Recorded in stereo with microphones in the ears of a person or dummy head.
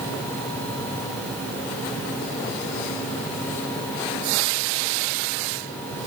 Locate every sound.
Only background noise.